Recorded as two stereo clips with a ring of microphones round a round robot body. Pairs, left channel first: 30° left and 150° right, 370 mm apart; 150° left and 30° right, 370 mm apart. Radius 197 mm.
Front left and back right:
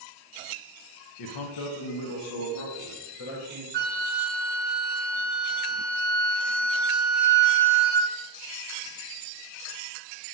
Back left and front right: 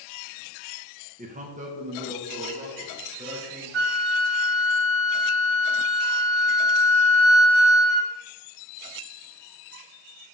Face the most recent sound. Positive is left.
turn(degrees=-80)